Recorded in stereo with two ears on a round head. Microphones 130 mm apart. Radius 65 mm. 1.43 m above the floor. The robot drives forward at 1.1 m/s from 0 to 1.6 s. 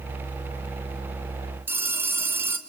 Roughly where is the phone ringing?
Centre.